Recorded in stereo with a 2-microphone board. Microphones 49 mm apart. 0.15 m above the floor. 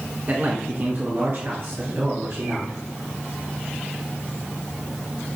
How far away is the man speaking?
About 1.3 m.